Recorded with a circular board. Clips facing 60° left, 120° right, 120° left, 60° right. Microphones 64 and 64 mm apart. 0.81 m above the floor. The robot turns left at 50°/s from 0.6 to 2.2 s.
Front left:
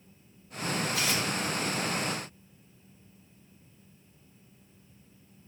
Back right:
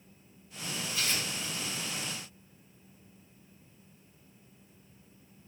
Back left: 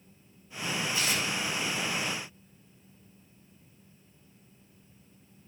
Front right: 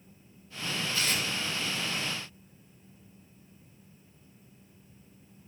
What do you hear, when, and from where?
0.9 s tearing paper: 50° left, 2.5 m; by 1.2 s 35° left, 2.5 m